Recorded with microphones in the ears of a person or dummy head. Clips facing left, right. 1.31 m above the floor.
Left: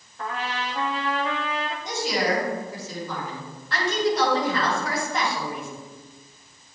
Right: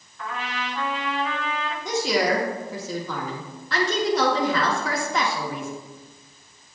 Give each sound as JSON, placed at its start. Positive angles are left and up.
{"t": 0.2, "sound": "a trumpet", "side_deg": 40, "distance_m": 1.2}
{"t": 1.9, "sound": "a woman speaking", "side_deg": -80, "distance_m": 2.5}